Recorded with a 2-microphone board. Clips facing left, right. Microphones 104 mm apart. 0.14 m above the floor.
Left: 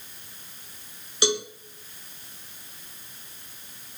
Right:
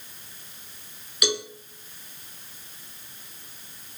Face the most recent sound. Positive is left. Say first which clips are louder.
# left 2 dB
turn(degrees=30)  # may be behind; listen again after turning